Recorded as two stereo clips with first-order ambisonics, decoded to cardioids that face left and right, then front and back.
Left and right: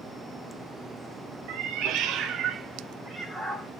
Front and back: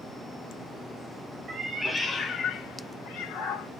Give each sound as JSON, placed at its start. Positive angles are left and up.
{"t": 1.5, "sound": "a cat meowing", "azimuth_deg": -110, "distance_m": 0.6}